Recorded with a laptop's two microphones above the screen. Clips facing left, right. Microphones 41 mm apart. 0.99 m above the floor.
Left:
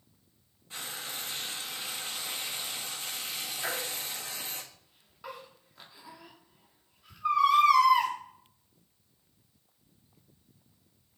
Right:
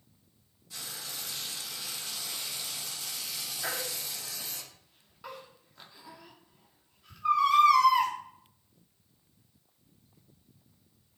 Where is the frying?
40° left (ahead or behind), 1.4 m.